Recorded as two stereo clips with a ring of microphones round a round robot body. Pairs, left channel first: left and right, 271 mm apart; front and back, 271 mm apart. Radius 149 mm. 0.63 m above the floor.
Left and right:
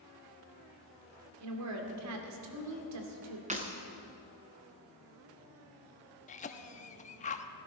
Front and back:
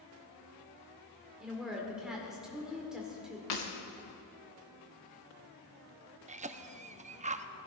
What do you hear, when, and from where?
1.4 s a woman speaking: 90° right, 2.5 m
3.5 s breaking glass: 25° right, 2.5 m
6.3 s a cough: 135° left, 0.9 m